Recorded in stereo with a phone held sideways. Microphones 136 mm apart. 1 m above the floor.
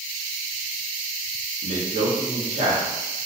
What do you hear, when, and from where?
1.6 s a man speaking: 55° right (ahead or behind), 1.0 m